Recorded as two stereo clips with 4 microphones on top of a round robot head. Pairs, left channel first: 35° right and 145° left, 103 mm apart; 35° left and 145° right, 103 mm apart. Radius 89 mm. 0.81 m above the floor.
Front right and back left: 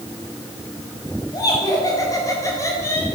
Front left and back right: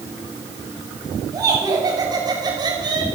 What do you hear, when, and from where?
1.3 s laughter: 90° right, 7 m; by 3.1 s 100° right, 5 m